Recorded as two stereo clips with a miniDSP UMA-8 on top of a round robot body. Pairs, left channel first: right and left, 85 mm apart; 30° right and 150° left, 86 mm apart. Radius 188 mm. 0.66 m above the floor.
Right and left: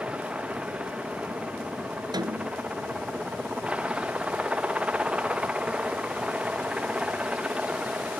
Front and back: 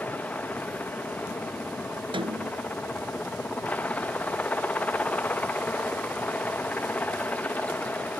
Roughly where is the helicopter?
Ahead left.